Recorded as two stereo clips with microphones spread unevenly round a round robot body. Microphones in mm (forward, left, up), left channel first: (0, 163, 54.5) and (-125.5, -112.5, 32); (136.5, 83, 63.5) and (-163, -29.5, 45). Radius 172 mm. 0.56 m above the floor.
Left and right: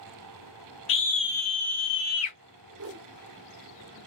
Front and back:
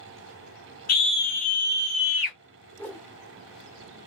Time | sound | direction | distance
0.9 | a scream | 30° left | 1.0 m
2.8 | a whoosh | 65° right | 0.5 m